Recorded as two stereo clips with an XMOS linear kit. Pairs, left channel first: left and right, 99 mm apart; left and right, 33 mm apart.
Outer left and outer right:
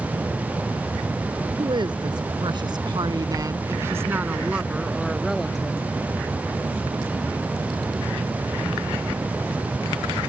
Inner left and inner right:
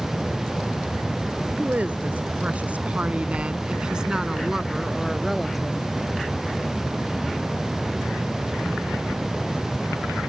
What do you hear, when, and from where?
1.6 s a woman speaking: 50° right (ahead or behind); by 5.9 s 5° left (ahead or behind)